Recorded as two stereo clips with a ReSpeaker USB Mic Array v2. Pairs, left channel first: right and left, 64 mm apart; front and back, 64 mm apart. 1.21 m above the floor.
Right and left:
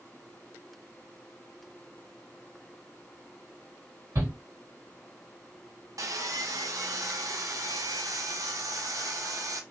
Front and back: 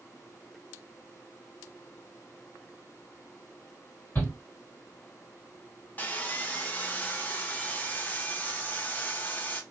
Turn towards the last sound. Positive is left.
turn(degrees=65)